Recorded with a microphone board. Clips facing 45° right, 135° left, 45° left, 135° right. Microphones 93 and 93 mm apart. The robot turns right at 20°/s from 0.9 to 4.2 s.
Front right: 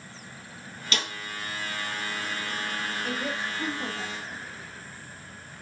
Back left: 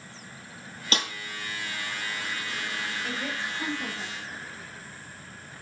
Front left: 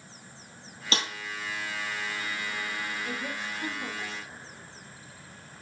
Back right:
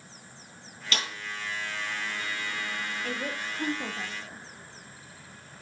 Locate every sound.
0.9 s a snare drum: 95° left, 3 m; by 1.1 s 100° left, 3 m
3.0 s a woman speaking: 130° right, 3 m; by 4.4 s 105° right, 3 m